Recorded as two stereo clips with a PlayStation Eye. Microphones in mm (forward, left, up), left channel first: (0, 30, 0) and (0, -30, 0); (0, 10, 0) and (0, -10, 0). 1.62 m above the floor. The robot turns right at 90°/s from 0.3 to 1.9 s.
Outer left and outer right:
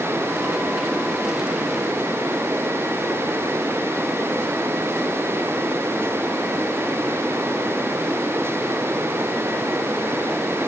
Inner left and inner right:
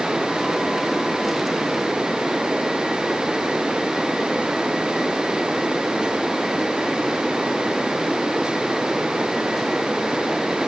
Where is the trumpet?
I don't hear a trumpet.